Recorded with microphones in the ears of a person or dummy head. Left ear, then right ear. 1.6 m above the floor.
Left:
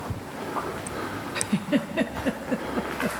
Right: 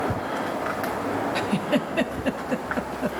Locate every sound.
1.4 s a giggle: 15° right (ahead or behind), 0.6 m